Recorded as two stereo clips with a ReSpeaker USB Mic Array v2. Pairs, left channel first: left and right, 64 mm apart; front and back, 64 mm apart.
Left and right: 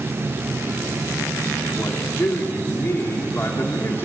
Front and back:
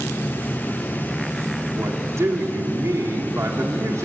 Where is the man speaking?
140° left, 3 m.